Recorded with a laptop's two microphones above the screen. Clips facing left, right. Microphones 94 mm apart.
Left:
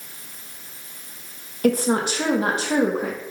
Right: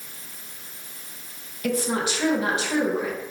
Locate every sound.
1.6 s a woman speaking: 45° left (ahead or behind), 0.8 m